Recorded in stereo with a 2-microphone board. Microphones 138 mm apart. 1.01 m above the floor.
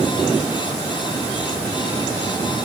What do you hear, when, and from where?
Only background noise.